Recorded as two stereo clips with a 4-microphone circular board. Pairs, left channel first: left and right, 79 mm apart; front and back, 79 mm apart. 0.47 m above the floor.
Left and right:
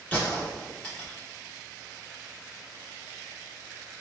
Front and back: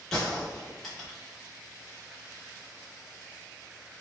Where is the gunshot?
85° left, 1.0 m.